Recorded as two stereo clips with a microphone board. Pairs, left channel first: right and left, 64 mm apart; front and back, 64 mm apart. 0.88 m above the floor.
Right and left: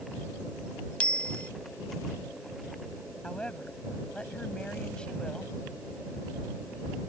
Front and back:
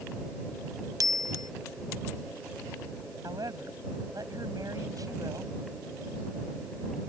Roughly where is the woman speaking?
Behind.